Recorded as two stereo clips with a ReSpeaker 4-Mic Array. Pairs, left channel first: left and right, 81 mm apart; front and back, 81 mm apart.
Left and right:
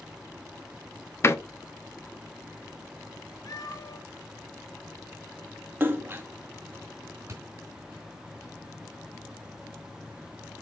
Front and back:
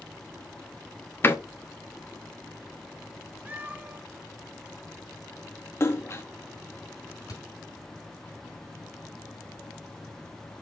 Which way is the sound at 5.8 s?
40° right.